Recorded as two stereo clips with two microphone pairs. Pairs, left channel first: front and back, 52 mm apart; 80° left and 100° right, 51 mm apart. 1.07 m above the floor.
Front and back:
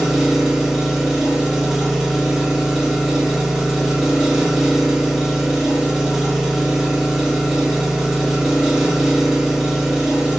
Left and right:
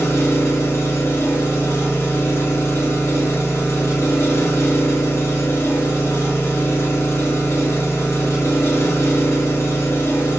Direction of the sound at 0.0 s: 100° left.